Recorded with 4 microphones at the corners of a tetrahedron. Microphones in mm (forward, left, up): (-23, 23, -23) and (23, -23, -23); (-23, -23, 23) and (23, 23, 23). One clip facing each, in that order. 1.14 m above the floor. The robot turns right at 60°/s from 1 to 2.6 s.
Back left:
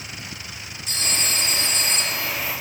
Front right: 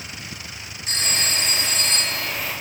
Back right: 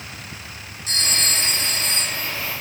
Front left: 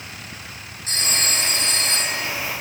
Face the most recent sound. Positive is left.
turn(degrees=85)